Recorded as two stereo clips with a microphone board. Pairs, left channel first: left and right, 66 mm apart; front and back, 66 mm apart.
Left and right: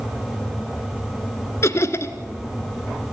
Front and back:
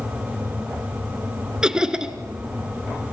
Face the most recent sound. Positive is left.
turn(degrees=105)